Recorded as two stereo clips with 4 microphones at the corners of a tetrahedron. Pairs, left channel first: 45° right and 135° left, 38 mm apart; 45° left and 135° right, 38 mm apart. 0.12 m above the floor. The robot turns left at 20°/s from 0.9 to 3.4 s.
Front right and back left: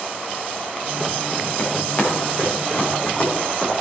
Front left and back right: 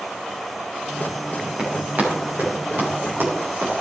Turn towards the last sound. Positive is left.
turn(degrees=-110)